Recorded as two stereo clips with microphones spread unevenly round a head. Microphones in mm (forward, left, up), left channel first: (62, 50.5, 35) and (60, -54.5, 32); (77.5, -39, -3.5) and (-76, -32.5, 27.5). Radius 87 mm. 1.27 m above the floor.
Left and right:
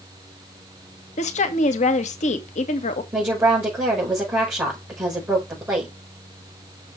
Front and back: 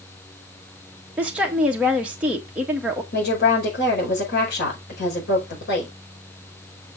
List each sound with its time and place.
1.2 s a woman speaking: 95° left, 1.7 m
3.1 s a woman speaking: 20° right, 5.5 m